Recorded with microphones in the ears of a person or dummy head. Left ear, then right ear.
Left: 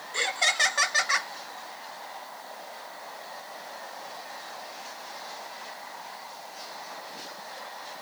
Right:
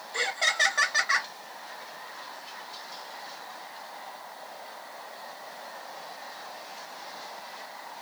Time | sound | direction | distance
0.1 | laughter | 5° right (ahead or behind) | 0.6 m